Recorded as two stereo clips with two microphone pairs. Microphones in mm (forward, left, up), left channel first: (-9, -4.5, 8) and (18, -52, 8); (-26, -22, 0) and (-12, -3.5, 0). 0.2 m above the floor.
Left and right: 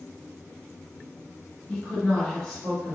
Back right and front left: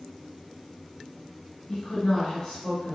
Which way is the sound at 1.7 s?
175° right.